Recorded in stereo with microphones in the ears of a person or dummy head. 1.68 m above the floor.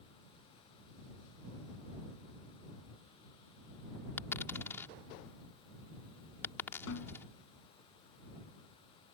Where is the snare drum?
70° left (ahead or behind).